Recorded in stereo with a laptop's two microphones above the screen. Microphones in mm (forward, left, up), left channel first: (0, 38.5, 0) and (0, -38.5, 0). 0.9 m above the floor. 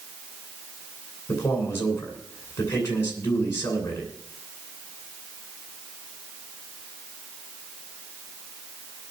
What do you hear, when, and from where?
1.3 s a man speaking: 30° left (ahead or behind), 8.5 m